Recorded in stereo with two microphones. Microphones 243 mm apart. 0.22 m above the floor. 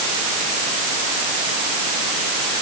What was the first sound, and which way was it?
Only background noise.